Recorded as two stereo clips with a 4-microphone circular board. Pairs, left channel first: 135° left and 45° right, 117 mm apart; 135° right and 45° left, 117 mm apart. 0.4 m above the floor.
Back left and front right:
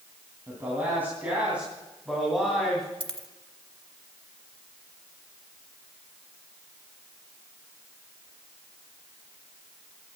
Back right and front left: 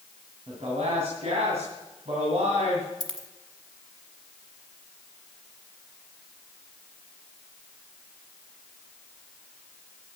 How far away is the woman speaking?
About 3.5 m.